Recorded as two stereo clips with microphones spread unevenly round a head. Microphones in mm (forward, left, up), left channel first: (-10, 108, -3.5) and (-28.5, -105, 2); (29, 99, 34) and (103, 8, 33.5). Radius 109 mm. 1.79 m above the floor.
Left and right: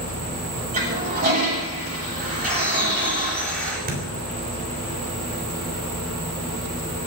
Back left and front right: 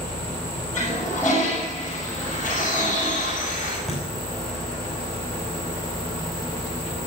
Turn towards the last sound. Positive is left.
turn(degrees=-140)